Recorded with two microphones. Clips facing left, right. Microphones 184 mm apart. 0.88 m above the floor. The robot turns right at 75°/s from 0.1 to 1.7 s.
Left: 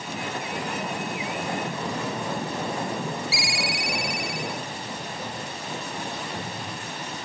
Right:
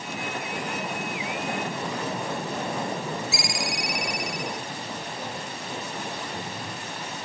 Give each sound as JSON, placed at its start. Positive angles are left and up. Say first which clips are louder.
{"t": 3.3, "sound": "a ringtone", "louder": "even", "side_deg": -45, "distance_m": 0.7}